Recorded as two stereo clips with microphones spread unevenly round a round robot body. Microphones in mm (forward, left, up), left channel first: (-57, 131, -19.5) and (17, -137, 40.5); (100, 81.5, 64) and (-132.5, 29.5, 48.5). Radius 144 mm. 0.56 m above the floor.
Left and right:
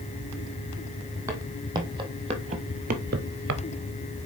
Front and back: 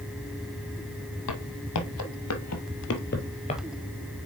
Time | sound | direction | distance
1.3 | footsteps | straight ahead | 1.6 m